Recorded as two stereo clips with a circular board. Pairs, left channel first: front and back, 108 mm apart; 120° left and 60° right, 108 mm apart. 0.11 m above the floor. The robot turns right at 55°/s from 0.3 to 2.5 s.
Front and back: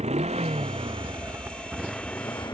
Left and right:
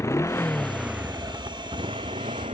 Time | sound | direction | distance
0.0 | a motorcycle | 175° right | ?